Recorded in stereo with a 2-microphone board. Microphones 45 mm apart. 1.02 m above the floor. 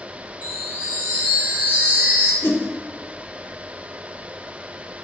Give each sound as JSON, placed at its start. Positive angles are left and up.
{"t": 0.4, "sound": "a chime", "side_deg": -40, "distance_m": 6.0}
{"t": 2.4, "sound": "a whoosh", "side_deg": 65, "distance_m": 3.5}